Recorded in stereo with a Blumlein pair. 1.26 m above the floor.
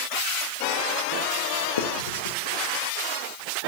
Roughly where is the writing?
Ahead left.